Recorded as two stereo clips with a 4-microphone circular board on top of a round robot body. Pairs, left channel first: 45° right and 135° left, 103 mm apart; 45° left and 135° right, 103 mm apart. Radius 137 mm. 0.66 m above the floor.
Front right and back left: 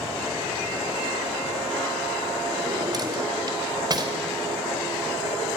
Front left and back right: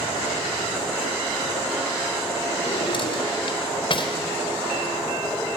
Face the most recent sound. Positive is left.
turn(degrees=85)